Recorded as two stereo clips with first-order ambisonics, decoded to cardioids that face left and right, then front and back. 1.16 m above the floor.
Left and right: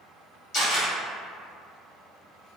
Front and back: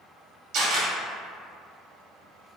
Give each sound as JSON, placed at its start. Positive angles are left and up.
{"t": 0.5, "sound": "a camera shutter", "azimuth_deg": 155, "distance_m": 1.4}